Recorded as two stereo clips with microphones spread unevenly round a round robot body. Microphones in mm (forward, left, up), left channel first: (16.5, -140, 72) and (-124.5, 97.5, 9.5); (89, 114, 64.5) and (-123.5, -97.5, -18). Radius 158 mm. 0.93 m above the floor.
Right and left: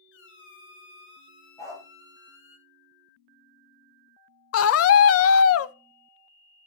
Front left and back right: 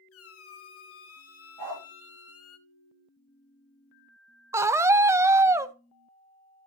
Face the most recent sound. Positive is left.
turn(degrees=-85)